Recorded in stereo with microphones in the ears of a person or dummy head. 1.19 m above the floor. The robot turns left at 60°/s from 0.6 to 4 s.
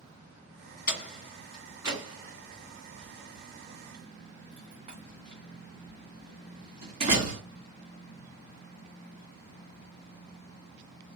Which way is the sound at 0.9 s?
45° left (ahead or behind).